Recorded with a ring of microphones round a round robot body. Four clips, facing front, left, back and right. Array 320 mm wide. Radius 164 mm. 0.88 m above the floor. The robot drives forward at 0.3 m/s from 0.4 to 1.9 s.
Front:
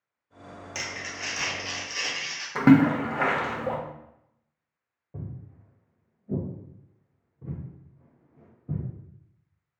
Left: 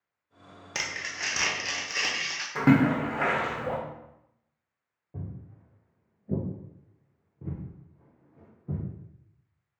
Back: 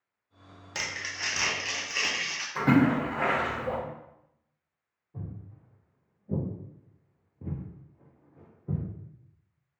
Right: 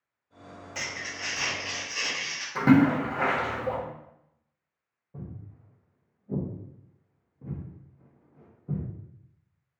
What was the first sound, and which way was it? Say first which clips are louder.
Crumpling: left 2 dB, back 1 dB; 95° left.